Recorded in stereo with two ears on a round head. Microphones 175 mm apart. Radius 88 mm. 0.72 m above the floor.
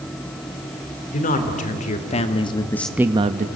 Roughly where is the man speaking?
Left.